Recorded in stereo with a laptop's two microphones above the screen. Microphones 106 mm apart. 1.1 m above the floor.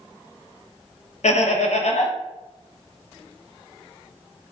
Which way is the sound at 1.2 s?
80° left.